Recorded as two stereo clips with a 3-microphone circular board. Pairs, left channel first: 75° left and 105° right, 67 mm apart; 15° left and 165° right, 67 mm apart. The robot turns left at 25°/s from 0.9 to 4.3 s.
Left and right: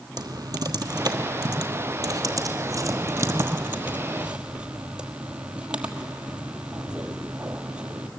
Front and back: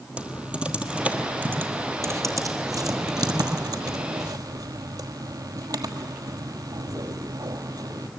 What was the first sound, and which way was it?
Typing on a keyboard, 95° right.